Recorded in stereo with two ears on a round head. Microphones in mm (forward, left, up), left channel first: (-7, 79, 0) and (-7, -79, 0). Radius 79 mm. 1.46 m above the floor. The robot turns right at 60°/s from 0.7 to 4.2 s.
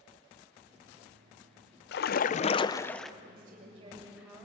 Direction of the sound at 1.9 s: 110° left.